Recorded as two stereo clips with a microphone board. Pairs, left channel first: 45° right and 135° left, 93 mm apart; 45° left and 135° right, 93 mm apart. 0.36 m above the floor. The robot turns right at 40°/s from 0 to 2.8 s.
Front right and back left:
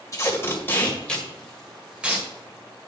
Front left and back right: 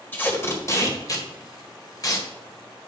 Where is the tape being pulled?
10° right, 1.7 m; by 2.3 s 75° left, 1.7 m.